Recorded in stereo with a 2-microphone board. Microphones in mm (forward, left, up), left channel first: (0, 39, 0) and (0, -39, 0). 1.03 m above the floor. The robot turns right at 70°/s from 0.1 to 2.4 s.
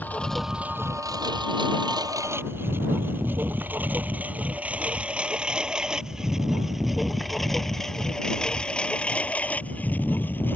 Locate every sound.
0.0 s a lawn mower: 20° left (ahead or behind); by 10.6 s 25° left (ahead or behind)